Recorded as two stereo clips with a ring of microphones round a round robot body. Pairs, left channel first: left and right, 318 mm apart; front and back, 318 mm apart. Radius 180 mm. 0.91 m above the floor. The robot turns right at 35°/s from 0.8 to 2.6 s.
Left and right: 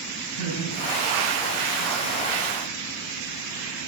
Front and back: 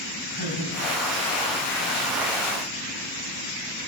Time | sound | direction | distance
0.3 | laughter | 60° left | 6 m